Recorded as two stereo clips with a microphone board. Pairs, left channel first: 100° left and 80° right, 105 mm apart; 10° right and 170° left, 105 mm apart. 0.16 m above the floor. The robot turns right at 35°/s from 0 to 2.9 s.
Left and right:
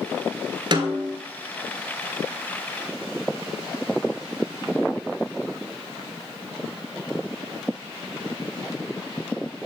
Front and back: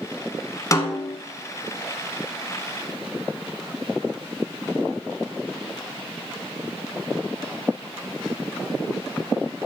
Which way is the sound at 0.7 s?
60° right.